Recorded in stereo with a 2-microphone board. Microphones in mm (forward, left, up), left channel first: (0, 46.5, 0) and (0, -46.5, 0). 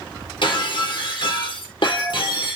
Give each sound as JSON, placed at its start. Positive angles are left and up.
{"t": 0.4, "sound": "breaking glass", "side_deg": 60, "distance_m": 1.8}